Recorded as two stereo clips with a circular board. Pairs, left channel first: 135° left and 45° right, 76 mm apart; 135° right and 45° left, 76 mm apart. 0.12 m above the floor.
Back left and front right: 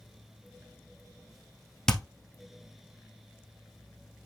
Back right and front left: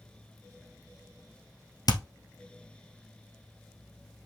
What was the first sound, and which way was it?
Hammering, 145° right.